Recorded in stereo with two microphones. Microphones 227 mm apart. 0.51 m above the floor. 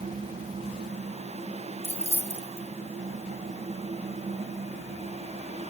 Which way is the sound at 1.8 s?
25° right (ahead or behind).